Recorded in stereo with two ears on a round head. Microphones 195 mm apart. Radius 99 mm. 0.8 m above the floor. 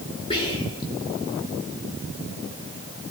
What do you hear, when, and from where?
0.3 s whispering: 25° left (ahead or behind), 3 m